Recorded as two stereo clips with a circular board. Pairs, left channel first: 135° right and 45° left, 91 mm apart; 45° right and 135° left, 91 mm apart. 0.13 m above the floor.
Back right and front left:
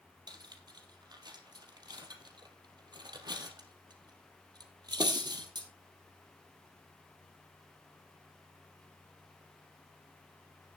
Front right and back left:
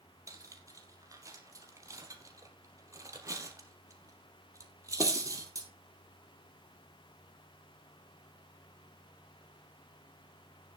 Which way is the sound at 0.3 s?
85° left.